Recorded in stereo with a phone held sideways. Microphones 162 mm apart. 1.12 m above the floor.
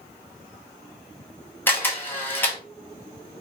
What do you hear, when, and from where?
1.7 s a camera shutter: 10° left (ahead or behind), 1.3 m